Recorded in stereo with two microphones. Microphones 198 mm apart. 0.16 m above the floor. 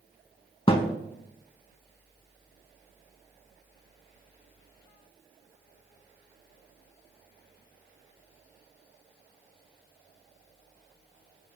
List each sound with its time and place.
0.7 s a thud: 25° left (ahead or behind), 0.5 m